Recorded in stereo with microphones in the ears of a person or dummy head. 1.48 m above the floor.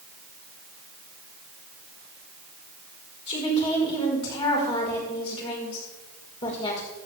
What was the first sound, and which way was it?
A woman speaking, 35° left (ahead or behind).